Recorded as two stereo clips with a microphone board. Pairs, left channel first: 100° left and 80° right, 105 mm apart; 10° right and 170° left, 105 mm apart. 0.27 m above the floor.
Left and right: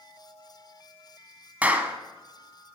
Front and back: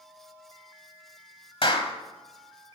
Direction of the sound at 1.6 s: 5° right.